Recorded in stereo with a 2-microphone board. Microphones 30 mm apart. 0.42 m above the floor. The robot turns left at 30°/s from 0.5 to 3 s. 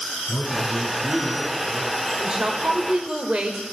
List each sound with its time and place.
0.3 s a man speaking: 70° left, 8 m; by 1.9 s 25° left, 8 m
2.2 s a woman speaking: 30° right (ahead or behind), 1.6 m; by 3.6 s 40° right (ahead or behind), 1.6 m